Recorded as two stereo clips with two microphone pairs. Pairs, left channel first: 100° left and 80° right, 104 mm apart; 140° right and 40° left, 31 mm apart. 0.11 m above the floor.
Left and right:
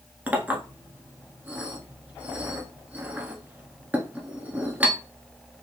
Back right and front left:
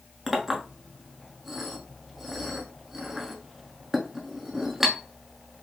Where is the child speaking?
No child speaking in this recording.